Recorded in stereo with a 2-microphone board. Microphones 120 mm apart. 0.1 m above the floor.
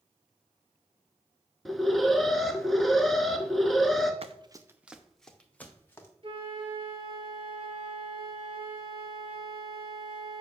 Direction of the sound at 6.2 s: 45° right (ahead or behind).